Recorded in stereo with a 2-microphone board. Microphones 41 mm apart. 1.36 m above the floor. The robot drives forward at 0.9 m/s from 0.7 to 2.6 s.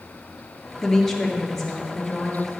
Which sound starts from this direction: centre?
A woman speaking, at 0.8 s.